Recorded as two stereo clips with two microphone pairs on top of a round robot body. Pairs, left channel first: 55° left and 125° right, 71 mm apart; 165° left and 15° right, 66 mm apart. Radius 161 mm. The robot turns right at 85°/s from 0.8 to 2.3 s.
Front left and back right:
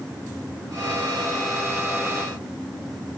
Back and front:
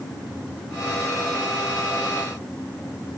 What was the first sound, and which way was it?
Only background noise.